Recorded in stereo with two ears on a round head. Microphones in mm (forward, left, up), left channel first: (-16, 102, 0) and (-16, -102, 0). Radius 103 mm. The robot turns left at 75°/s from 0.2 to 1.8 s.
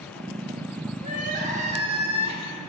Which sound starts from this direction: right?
Crying, at 1.0 s.